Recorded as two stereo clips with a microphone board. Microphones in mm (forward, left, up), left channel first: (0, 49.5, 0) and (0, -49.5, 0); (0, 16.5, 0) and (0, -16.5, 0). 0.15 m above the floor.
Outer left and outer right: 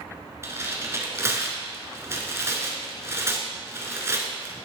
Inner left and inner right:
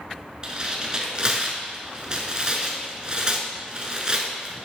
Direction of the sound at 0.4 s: 30° right (ahead or behind).